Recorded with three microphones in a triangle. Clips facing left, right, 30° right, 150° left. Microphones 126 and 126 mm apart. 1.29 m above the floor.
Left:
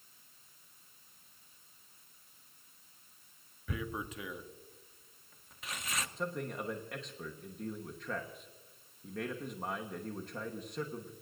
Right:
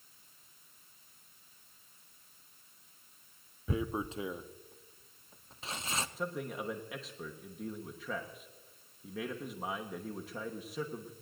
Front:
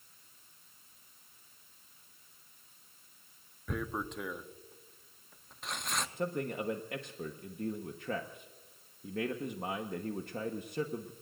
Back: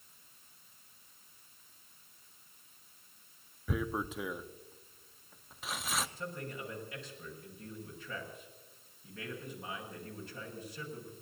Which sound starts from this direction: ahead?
A man speaking, at 6.2 s.